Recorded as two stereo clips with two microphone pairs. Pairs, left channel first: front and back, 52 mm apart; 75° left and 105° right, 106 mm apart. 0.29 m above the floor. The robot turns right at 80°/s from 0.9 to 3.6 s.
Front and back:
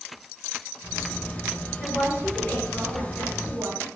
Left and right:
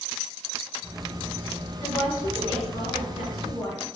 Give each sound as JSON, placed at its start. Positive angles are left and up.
{"t": 1.8, "sound": "a woman speaking", "azimuth_deg": -5, "distance_m": 3.0}